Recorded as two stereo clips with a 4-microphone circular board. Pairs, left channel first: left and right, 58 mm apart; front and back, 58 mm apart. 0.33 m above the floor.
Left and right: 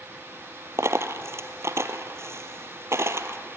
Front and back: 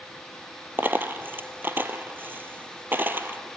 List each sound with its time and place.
0.8 s a dropped coin: 125° right, 1.2 m